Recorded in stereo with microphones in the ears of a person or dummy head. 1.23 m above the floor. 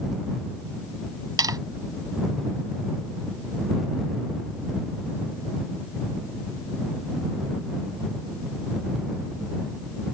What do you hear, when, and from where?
1.4 s tapping: 20° right (ahead or behind)